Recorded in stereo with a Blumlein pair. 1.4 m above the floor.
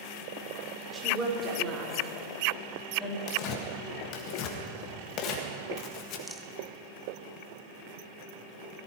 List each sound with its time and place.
0.9 s a woman speaking: 15° right, 5 m; by 3.2 s 10° left, 3.5 m
3.3 s tearing paper: 35° left, 1.8 m
6.3 s a rattle: straight ahead, 0.9 m